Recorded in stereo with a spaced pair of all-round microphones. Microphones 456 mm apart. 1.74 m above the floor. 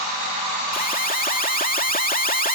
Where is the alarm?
20° left (ahead or behind).